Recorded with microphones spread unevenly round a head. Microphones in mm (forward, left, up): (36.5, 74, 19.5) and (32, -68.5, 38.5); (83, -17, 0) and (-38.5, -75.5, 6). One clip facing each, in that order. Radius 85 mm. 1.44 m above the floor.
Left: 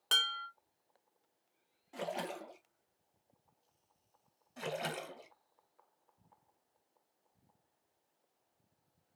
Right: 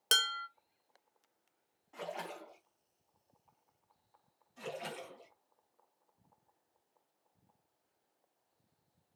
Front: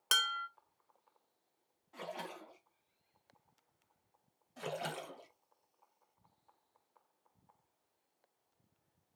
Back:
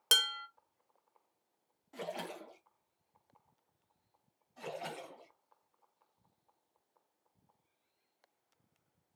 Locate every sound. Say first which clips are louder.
0.1 s dishes clattering: right 3 dB, even; 115° right, 0.7 m
1.9 s a splash: left 3 dB, back 3 dB; 150° left, 1.3 m
4.6 s a splash: left 3 dB, front 2 dB; 70° left, 2 m